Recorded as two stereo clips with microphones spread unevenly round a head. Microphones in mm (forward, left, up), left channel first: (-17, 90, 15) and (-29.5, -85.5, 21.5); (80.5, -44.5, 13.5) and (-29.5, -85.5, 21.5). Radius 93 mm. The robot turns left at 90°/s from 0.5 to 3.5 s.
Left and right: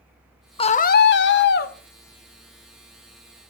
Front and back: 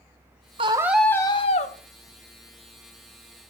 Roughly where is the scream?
Behind left.